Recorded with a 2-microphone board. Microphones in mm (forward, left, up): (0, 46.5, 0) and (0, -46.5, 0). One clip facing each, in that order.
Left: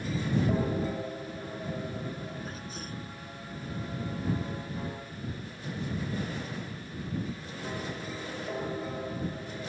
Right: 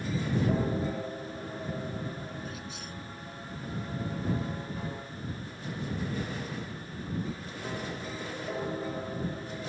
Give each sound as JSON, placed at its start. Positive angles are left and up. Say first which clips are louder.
{"t": 2.5, "sound": "a sneeze", "louder": "left 1 dB", "side_deg": 40}